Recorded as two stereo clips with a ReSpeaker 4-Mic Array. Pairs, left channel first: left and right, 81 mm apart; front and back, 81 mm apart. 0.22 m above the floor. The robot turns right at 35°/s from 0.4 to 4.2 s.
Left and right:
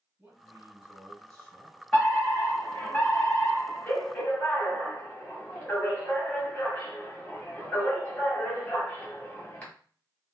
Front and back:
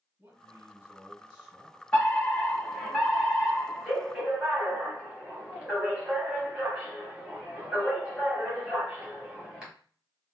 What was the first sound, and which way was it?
A man speaking, 145° right.